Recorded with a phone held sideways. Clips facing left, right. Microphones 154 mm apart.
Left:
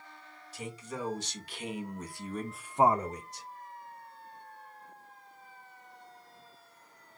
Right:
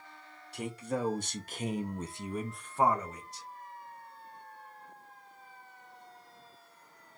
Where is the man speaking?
60° right (ahead or behind), 1.4 m; by 3.5 s 50° left (ahead or behind), 0.7 m.